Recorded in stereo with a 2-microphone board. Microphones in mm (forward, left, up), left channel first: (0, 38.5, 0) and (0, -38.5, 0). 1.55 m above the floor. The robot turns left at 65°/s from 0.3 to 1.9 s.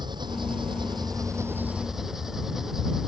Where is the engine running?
70° right; by 3.1 s 175° right.